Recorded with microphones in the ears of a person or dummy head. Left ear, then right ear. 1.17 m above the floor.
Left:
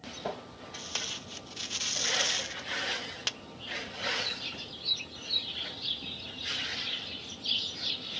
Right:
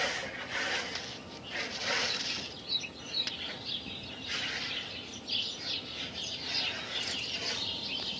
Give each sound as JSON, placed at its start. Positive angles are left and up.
{"t": 0.7, "sound": "tape being pulled", "side_deg": 40}